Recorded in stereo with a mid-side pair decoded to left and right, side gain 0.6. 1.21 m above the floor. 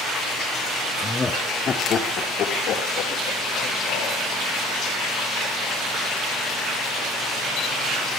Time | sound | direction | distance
1.0 | laughter | 10° left | 1.1 m